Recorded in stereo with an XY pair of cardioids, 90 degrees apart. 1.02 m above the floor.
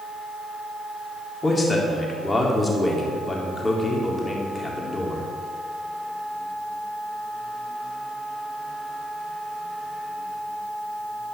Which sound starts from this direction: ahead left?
A man speaking, at 1.4 s.